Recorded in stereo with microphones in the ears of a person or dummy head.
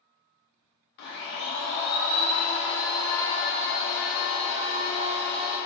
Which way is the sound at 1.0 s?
50° left (ahead or behind).